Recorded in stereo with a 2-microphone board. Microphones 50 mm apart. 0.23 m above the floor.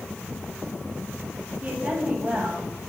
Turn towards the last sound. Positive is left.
turn(degrees=-25)  # may be behind; listen again after turning